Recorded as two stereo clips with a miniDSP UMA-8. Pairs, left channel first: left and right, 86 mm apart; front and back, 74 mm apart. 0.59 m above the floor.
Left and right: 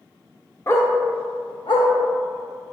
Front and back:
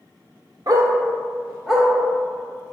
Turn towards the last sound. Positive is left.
turn(degrees=90)